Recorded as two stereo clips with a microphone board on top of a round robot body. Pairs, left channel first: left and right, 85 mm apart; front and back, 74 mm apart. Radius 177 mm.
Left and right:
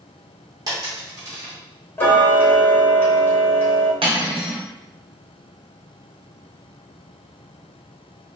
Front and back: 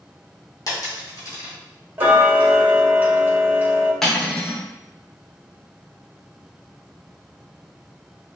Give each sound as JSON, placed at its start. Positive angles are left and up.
{"t": 0.7, "sound": "a dropped coin", "azimuth_deg": -45, "distance_m": 0.9}
{"t": 2.0, "sound": "ticking", "azimuth_deg": 135, "distance_m": 1.0}
{"t": 4.0, "sound": "cutlery clinking", "azimuth_deg": -85, "distance_m": 0.7}